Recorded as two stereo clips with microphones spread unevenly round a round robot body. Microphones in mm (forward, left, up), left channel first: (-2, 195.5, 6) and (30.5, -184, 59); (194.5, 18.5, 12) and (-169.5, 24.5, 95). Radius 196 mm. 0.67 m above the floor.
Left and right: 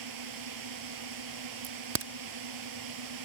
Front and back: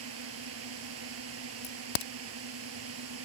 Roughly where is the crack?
Ahead right.